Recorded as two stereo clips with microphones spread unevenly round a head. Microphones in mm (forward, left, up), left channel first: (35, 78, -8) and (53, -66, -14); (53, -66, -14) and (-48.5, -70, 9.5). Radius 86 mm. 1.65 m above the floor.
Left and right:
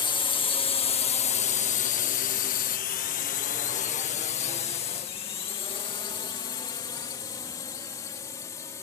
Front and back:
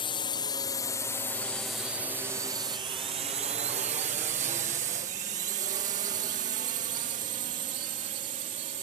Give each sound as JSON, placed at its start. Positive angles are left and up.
{"t": 0.0, "sound": "a drone", "azimuth_deg": 40}